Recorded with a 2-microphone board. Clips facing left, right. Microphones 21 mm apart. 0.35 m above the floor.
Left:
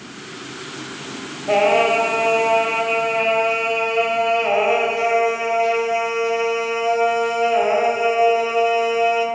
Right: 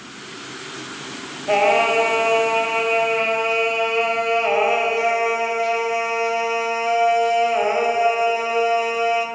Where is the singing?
Centre (ahead or behind), 1.8 m.